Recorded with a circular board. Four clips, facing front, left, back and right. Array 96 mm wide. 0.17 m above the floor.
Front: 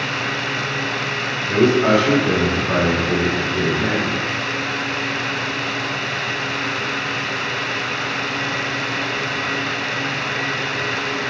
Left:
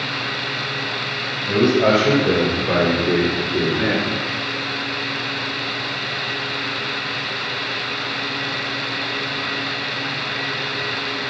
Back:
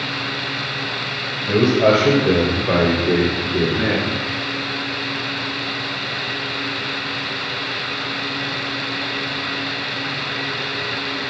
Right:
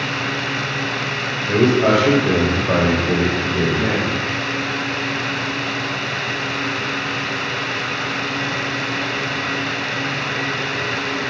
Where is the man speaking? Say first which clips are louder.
Right 1 dB, even; 160° left, 4.5 m; by 4.2 s 140° left, 2.5 m.